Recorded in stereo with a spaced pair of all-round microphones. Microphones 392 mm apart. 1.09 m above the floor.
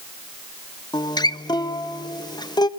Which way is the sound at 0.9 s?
10° left (ahead or behind).